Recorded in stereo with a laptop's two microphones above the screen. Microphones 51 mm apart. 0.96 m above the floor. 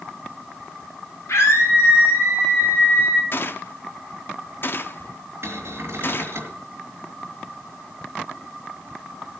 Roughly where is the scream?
Left.